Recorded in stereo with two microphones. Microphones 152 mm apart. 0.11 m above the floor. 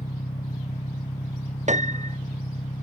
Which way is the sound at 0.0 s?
50° left (ahead or behind).